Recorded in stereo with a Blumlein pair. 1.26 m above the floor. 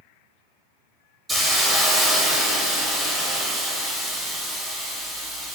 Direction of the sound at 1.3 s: Straight ahead.